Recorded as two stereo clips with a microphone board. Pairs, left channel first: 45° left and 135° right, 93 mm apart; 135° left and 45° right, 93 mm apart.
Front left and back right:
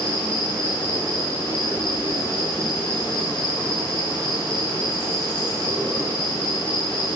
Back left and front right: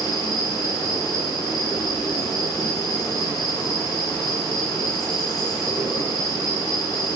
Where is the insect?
170° left, 4.5 m.